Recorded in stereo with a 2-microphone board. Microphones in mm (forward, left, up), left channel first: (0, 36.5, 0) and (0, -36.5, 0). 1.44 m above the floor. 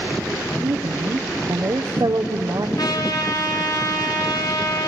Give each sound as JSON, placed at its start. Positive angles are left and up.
{"t": 0.6, "sound": "a woman speaking", "side_deg": -70, "distance_m": 0.8}
{"t": 2.8, "sound": "a trumpet", "side_deg": 60, "distance_m": 2.0}